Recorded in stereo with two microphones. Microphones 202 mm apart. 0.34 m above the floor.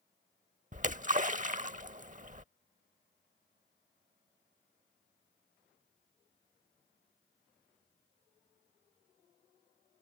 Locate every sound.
0.7 s a splash: 40° right (ahead or behind)